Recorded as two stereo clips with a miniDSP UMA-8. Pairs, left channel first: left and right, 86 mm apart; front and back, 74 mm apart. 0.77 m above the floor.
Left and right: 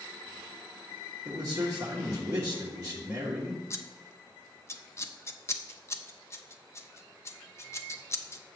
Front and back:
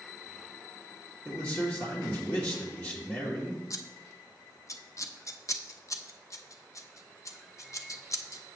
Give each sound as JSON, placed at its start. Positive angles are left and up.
{"t": 1.2, "sound": "a man speaking", "azimuth_deg": -55, "distance_m": 1.5}
{"t": 3.7, "sound": "scissors", "azimuth_deg": 35, "distance_m": 0.5}